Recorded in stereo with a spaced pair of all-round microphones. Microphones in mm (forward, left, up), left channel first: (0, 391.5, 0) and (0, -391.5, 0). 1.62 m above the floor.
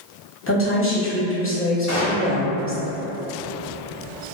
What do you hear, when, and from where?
0.5 s a woman speaking: 15° left (ahead or behind), 0.9 m
1.9 s a gunshot: 20° left (ahead or behind), 0.8 m